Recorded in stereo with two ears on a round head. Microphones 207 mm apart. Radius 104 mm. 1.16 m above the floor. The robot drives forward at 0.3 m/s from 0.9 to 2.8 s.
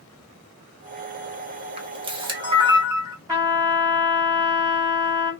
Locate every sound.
1.8 s a camera shutter: 25° right (ahead or behind), 0.8 m; by 3.2 s 20° right (ahead or behind), 1.0 m
3.3 s a trumpet: 15° right (ahead or behind), 1.4 m